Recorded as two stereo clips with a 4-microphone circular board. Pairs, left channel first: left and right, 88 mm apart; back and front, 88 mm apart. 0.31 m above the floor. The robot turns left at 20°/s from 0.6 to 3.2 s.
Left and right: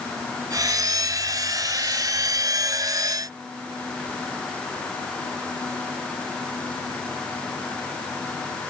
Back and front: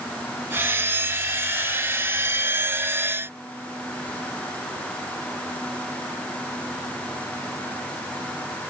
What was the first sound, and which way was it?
Only background noise.